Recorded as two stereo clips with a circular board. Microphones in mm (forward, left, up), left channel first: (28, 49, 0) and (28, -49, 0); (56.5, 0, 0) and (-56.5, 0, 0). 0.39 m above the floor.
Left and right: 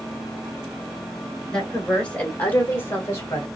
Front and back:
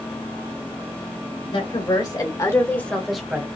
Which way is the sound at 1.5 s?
10° left.